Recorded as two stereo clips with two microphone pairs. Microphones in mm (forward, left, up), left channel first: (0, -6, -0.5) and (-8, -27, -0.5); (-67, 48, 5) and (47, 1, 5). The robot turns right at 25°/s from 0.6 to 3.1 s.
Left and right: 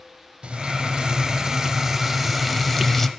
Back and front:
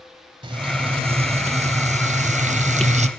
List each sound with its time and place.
0.4 s frying: 70° right, 0.6 m; by 3.1 s 10° right, 0.6 m